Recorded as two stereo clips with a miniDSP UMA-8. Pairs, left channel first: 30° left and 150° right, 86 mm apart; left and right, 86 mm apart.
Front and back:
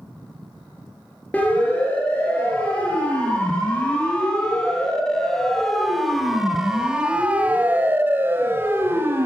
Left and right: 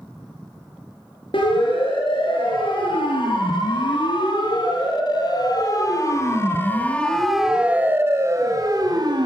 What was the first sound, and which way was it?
A siren, 105° left.